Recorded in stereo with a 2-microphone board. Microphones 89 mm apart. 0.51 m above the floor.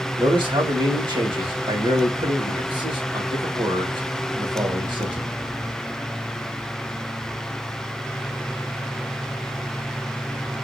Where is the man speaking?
60° right (ahead or behind), 2 m.